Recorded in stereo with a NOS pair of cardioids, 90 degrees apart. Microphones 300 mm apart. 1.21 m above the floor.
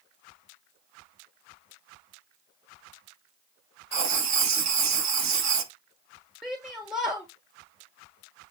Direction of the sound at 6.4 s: Straight ahead.